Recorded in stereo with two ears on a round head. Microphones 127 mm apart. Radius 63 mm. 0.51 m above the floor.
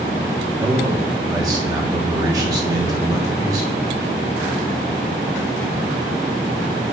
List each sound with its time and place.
0.6 s a man speaking: 25° right (ahead or behind), 1.1 m